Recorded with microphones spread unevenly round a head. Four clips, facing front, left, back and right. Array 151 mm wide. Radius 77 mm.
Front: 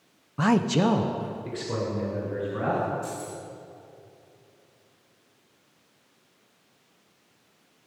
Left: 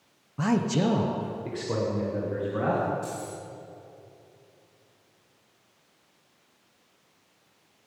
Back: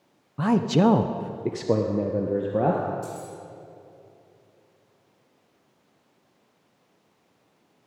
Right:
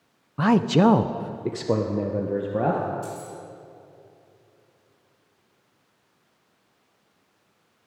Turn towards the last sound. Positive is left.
turn(degrees=-170)